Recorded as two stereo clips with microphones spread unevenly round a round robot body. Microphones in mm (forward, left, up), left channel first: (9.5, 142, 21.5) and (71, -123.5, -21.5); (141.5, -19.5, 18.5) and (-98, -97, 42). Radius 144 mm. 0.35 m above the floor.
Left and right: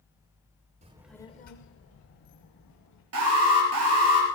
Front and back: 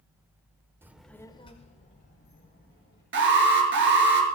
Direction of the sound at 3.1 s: 120° right.